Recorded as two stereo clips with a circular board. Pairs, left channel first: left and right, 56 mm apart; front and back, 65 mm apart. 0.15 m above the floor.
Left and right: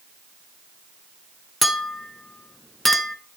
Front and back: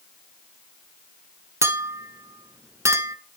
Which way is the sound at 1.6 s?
175° left.